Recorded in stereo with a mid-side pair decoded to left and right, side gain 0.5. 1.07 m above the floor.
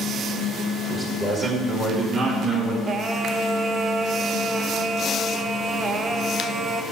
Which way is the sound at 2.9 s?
40° right.